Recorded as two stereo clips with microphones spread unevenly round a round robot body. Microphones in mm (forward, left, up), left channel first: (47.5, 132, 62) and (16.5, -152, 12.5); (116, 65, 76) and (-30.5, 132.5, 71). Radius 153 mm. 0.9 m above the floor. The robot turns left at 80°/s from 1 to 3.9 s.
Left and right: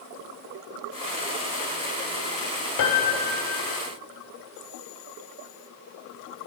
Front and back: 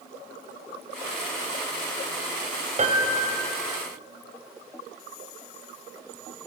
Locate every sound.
2.8 s a piano: 110° left, 2 m; by 3.6 s 40° left, 2 m